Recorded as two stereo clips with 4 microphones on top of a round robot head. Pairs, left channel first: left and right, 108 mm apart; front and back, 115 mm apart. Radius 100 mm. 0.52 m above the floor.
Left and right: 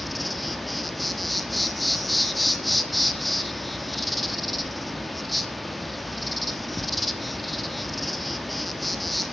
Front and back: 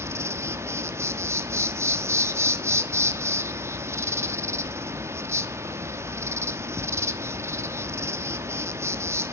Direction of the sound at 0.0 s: 175° left.